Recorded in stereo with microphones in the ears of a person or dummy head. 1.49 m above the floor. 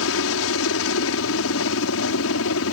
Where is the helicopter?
70° left (ahead or behind).